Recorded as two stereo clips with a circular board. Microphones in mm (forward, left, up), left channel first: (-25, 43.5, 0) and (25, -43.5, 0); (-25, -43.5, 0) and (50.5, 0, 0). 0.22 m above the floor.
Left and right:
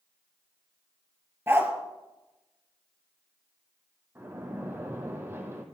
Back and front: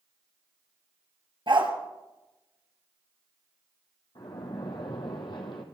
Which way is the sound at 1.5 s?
5° left.